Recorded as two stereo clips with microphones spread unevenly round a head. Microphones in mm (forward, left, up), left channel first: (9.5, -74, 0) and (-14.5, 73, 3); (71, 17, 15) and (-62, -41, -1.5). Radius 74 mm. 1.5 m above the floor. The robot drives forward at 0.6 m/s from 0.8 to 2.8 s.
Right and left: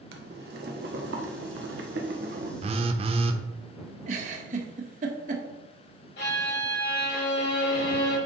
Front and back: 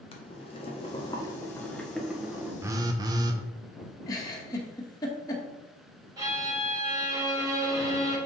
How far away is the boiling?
About 1.2 m.